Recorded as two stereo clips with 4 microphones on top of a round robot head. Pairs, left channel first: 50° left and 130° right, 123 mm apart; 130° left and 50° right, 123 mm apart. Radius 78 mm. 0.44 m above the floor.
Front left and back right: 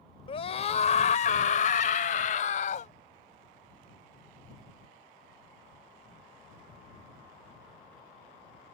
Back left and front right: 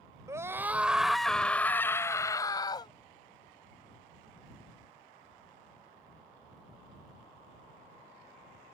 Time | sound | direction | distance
0.3 | a scream | 10° left | ?